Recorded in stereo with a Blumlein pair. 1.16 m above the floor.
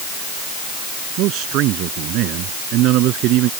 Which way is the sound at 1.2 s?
40° right.